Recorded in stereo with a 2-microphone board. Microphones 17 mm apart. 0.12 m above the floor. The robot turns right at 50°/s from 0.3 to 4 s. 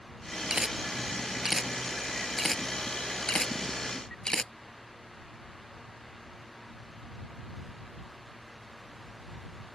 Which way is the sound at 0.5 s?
55° right (ahead or behind).